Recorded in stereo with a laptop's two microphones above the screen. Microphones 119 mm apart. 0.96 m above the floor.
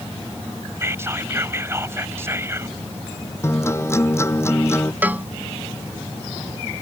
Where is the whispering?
20° right (ahead or behind).